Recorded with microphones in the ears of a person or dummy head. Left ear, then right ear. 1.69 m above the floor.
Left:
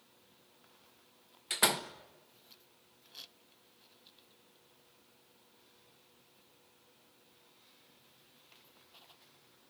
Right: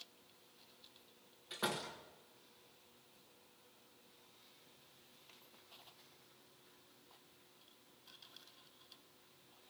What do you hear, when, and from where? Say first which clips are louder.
1.5 s a door slam: left 10 dB; 45° left (ahead or behind), 1.1 m